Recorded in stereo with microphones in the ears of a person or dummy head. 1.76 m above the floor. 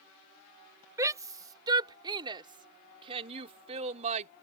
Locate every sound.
1.0 s a shout: 20° right (ahead or behind); by 4.3 s 40° right (ahead or behind)